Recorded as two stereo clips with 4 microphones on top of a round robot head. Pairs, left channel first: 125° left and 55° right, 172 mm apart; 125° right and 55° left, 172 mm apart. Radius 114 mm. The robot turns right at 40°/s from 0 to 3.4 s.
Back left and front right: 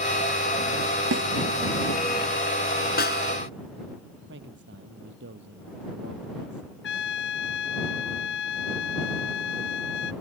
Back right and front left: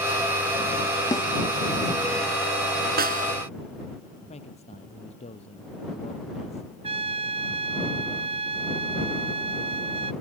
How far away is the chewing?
No chewing in this recording.